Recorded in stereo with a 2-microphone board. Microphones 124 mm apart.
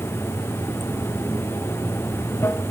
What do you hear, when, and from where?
0.0 s running water: 20° left (ahead or behind), 0.7 m